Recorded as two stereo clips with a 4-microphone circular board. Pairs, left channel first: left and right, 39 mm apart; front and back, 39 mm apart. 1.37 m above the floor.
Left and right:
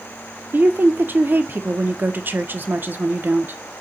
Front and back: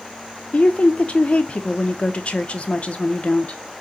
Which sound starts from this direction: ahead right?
A woman speaking, at 0.5 s.